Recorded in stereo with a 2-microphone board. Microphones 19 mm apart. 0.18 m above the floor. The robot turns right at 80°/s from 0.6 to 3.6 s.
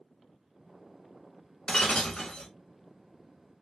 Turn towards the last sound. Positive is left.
turn(degrees=-135)